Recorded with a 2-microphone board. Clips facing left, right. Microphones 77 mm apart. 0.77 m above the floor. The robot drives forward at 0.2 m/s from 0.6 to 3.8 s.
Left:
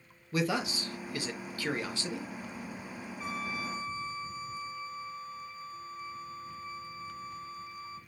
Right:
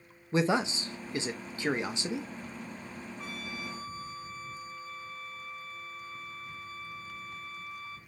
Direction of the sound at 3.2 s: 55° right (ahead or behind).